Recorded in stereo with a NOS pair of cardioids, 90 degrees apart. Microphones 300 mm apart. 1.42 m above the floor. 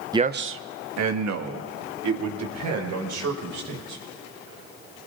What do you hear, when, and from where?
0.1 s a man speaking: 15° right, 0.6 m; by 4.0 s 75° right, 6 m